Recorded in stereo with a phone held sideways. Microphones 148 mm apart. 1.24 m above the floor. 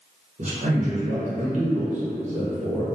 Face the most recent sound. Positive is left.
turn(degrees=-55)  # may be behind; listen again after turning